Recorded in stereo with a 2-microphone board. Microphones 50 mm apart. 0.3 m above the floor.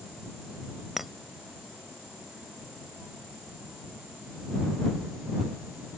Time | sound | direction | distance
1.0 | a clink | 5° right (ahead or behind) | ?